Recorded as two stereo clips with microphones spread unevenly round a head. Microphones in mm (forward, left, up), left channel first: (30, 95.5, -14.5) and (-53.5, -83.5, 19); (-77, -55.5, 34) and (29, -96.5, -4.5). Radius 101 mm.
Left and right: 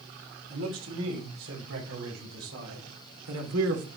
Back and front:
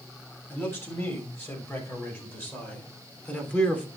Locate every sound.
0.5 s a man speaking: 135° right, 6.5 m; by 3.9 s 120° right, 3 m